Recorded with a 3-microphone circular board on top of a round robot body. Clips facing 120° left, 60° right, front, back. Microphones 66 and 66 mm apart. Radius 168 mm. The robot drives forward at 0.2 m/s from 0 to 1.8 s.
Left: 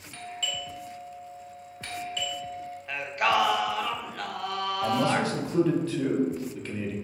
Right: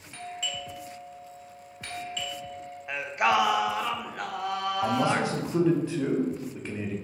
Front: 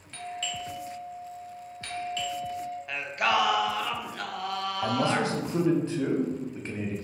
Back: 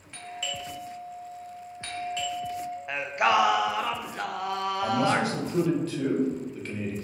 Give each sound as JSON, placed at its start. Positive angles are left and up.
{"t": 0.1, "sound": "a doorbell", "azimuth_deg": -115, "distance_m": 1.3}
{"t": 2.9, "sound": "singing", "azimuth_deg": -125, "distance_m": 0.6}
{"t": 4.8, "sound": "a man speaking", "azimuth_deg": -20, "distance_m": 1.0}